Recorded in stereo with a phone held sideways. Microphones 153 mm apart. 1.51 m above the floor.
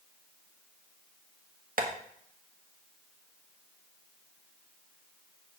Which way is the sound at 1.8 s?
65° right (ahead or behind).